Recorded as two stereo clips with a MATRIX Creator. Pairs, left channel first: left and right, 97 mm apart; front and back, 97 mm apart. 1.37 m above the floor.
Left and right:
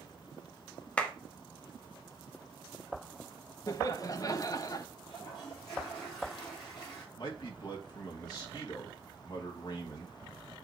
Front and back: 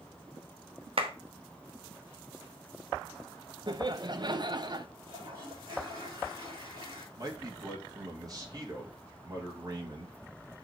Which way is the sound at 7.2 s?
130° left.